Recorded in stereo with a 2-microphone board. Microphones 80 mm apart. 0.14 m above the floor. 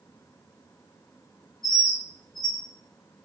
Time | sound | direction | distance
1.6 | a bird | 45° right (ahead or behind) | 1.7 m